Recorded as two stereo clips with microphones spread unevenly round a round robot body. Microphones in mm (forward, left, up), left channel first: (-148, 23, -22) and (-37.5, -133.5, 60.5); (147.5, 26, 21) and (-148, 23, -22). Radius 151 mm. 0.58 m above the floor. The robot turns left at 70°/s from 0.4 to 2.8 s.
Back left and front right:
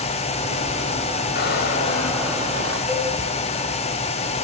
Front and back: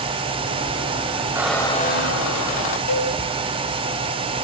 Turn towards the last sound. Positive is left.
turn(degrees=35)